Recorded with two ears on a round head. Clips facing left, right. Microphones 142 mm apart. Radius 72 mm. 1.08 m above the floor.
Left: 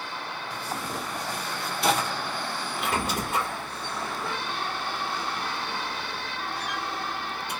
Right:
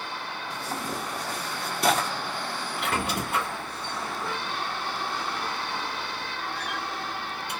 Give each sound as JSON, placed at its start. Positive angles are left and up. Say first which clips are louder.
{"t": 0.5, "sound": "tearing paper", "louder": "right 1 dB", "side_deg": -40, "distance_m": 1.0}
{"t": 2.8, "sound": "a squeak", "louder": "even", "side_deg": -50, "distance_m": 1.7}